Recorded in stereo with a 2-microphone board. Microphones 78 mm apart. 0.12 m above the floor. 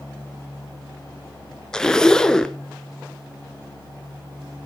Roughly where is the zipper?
Centre.